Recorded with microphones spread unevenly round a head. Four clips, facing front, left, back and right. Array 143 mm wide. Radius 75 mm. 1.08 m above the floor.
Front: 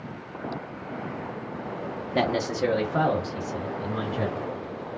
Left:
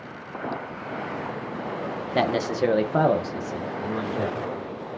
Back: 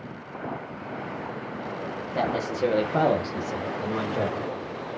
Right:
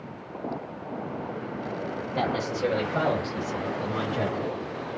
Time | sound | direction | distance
2.1 | a man speaking | 60° left | 0.8 m